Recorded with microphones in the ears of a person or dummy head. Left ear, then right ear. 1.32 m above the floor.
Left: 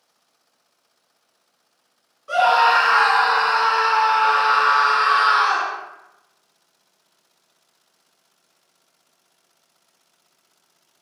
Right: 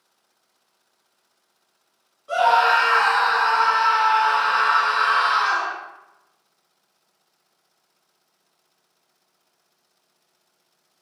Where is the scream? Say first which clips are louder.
Left 1 dB; 25° left (ahead or behind), 1.3 m.